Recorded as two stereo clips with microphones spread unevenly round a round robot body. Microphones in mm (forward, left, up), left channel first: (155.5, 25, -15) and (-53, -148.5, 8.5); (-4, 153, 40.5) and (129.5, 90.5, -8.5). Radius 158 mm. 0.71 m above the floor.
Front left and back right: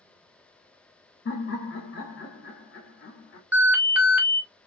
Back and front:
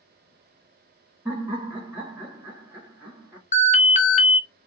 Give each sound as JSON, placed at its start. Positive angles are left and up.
{"t": 1.2, "sound": "laughter", "azimuth_deg": 25, "distance_m": 1.2}
{"t": 3.5, "sound": "an alarm", "azimuth_deg": 130, "distance_m": 0.6}